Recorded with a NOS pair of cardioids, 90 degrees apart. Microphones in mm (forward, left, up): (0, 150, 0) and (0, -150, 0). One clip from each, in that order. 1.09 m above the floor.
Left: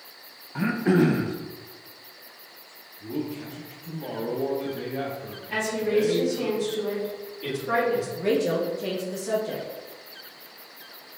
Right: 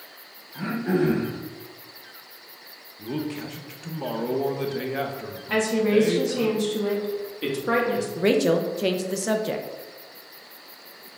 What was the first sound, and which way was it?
Throat clearing, 45° left.